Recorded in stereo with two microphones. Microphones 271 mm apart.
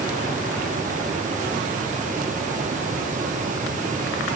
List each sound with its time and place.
Only background noise.